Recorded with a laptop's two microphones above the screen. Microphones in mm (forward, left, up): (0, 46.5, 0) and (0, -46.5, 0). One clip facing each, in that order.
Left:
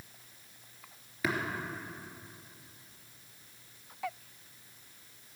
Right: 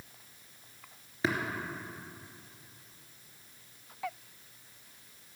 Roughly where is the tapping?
Right.